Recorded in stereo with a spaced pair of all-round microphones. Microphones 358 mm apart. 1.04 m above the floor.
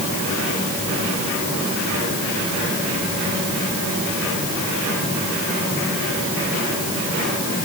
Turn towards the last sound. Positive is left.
No sound to turn to.